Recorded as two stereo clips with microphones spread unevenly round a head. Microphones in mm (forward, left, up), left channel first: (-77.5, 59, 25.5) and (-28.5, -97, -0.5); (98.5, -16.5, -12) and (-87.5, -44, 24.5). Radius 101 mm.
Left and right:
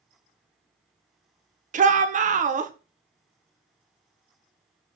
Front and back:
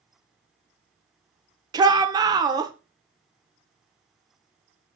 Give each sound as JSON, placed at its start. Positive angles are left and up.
{"t": 1.7, "sound": "a shout", "azimuth_deg": -115, "distance_m": 0.8}